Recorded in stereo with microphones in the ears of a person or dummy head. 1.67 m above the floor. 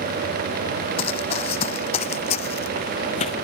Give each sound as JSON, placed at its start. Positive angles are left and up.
{"t": 1.0, "sound": "running footsteps", "side_deg": 35}